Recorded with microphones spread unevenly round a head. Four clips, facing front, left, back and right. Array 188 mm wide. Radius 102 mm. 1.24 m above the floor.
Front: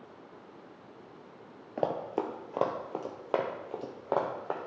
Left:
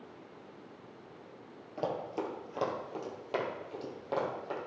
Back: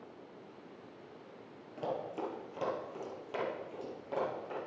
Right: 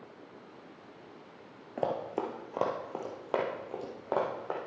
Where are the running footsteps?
20° right, 1.4 m; by 4.6 s 25° right, 2.5 m.